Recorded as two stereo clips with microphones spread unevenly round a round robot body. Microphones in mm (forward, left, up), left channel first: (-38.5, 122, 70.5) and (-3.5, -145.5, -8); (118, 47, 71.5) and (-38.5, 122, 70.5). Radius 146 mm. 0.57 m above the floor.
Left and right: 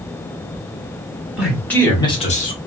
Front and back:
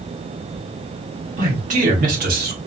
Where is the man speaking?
160° right, 1.5 m; by 2.6 s 160° left, 1.3 m.